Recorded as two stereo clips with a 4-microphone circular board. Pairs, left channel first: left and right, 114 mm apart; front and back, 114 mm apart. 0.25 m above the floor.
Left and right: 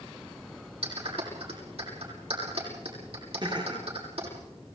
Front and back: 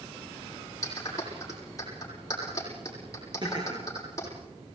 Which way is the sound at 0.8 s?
60° right.